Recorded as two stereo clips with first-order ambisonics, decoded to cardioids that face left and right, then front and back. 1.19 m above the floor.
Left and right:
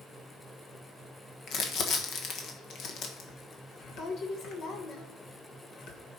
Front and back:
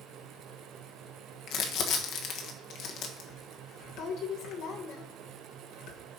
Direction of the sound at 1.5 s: 40° left.